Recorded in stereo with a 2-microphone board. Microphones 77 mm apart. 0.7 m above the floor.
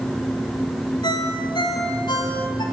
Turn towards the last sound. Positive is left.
turn(degrees=85)